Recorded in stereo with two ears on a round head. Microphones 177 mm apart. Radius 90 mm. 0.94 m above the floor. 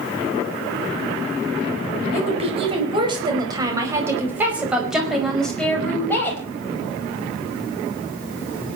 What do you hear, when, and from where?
2.1 s a woman speaking: 35° right (ahead or behind), 5.5 m; by 6.4 s 15° left (ahead or behind), 5.5 m